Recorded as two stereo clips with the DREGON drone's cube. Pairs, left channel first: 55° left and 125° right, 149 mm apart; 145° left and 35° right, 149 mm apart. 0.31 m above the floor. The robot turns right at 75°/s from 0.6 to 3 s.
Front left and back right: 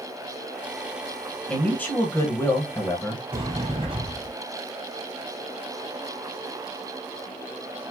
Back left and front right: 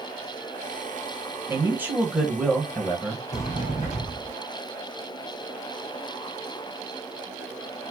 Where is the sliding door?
Straight behind, 2.0 m.